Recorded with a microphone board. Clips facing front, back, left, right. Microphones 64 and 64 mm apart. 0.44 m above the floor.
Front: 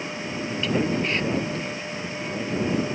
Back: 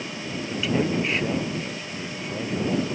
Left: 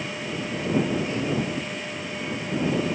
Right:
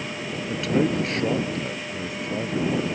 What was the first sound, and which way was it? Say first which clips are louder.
A man speaking: even, right 3 dB; 95° right.